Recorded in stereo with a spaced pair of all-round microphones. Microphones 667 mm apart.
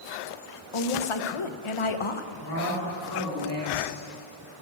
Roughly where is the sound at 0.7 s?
Left.